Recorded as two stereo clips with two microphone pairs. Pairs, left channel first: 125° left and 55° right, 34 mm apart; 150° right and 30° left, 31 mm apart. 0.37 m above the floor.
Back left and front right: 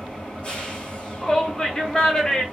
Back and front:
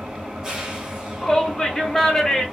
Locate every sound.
0.0 s an engine running: 90° left, 1.3 m
1.2 s a shout: 165° left, 0.8 m